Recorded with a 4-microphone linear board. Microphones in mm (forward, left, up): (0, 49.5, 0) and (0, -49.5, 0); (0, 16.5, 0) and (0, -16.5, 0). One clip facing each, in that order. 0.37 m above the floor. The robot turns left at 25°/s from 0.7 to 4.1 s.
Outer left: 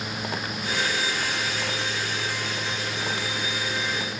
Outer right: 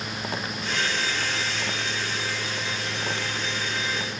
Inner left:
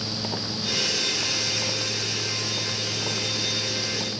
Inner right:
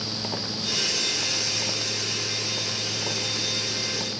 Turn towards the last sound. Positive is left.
No sound to turn to.